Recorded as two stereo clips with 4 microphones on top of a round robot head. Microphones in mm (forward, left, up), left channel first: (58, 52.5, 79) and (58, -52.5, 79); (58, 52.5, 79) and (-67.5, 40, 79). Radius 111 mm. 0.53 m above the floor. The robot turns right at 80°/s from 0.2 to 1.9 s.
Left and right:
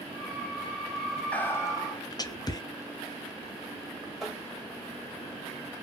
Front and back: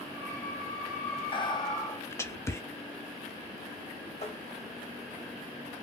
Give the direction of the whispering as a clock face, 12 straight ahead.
11 o'clock.